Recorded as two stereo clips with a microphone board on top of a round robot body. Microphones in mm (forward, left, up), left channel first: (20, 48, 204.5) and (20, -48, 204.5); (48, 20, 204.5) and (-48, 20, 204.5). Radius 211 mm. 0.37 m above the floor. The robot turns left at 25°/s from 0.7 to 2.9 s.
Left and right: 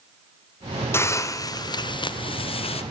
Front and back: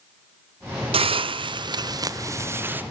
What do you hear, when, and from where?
0.9 s a hiss: 155° left, 0.6 m; by 2.8 s 110° left, 0.6 m